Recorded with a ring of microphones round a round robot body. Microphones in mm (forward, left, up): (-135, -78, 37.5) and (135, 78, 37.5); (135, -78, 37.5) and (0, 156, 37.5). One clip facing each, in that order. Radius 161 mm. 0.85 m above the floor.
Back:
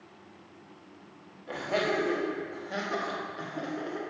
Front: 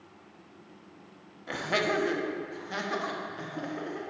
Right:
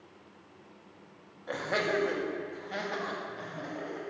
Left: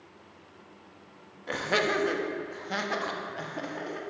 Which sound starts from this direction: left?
Laughter, at 1.5 s.